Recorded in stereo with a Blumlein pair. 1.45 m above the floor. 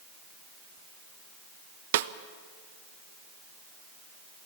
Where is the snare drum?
55° right, 0.6 m.